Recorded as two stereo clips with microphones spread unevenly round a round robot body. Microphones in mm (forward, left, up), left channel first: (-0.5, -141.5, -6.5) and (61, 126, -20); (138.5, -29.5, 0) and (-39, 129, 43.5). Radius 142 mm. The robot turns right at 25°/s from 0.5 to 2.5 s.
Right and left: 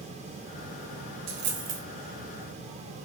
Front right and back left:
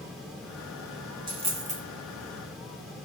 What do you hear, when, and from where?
1.3 s a dropped coin: 65° left, 0.7 m; by 1.8 s 80° left, 0.7 m